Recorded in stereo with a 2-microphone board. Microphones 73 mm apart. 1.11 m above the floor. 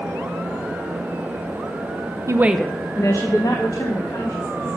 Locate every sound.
2.3 s a woman speaking: 40° right (ahead or behind), 0.6 m; by 4.8 s 70° left (ahead or behind), 3 m